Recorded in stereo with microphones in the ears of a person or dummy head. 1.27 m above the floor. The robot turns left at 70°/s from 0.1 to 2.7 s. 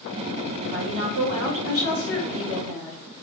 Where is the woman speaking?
55° right, 1.8 m; by 3.0 s 160° left, 1.8 m.